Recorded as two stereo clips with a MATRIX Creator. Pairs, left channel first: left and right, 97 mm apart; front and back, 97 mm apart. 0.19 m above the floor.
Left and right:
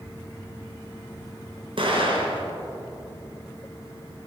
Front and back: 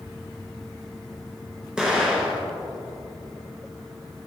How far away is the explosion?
About 2.0 m.